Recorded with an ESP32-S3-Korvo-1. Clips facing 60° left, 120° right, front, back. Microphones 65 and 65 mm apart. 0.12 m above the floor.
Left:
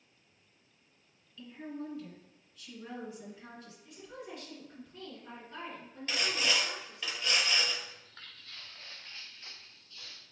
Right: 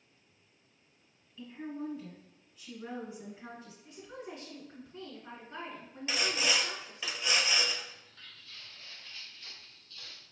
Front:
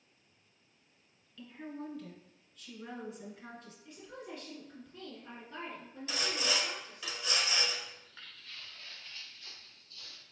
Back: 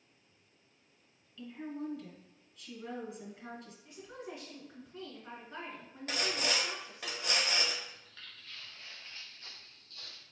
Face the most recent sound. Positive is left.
turn(degrees=145)